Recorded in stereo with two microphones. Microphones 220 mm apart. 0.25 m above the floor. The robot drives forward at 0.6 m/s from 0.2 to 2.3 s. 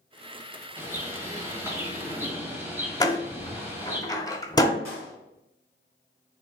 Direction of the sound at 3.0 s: 15° left (ahead or behind).